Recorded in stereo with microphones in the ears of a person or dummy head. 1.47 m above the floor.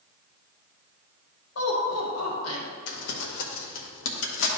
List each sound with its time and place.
1.6 s laughter: 75° left (ahead or behind), 3 m
2.9 s crumpling: 70° left (ahead or behind), 1.4 m